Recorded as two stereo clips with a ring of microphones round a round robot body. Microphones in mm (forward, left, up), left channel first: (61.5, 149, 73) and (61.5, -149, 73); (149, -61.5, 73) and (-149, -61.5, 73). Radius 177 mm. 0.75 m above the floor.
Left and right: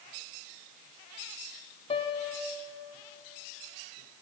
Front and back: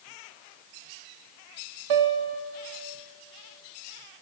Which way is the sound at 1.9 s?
165° left.